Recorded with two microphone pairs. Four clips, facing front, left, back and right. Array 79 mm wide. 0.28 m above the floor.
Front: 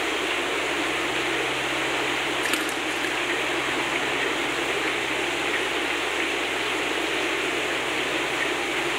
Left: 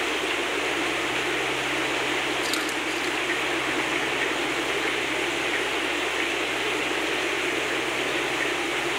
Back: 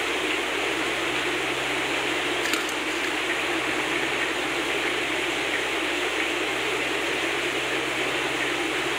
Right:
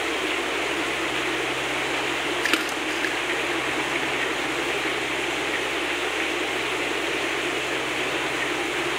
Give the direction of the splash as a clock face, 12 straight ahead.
3 o'clock.